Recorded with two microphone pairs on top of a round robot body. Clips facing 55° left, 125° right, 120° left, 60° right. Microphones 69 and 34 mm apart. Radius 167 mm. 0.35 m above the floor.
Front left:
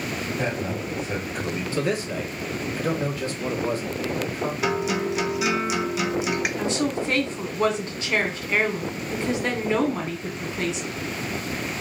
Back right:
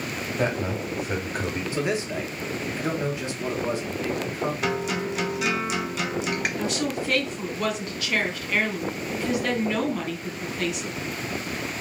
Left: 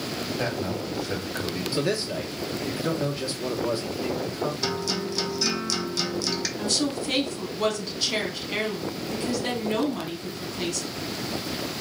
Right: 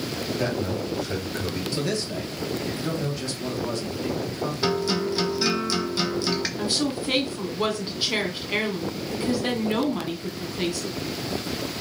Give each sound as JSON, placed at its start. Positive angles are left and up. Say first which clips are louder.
{"t": 0.4, "sound": "a man speaking", "louder": "back right 4 dB, right 3 dB", "azimuth_deg": -155, "distance_m": 1.6}
{"t": 1.7, "sound": "a man speaking", "louder": "front left 2 dB, left 3 dB", "azimuth_deg": 175, "distance_m": 1.4}
{"t": 4.6, "sound": "a guitar", "louder": "front left 2 dB, right 4 dB", "azimuth_deg": -15, "distance_m": 0.8}
{"t": 6.6, "sound": "a woman speaking", "louder": "front left 2 dB, right 1 dB", "azimuth_deg": 5, "distance_m": 1.3}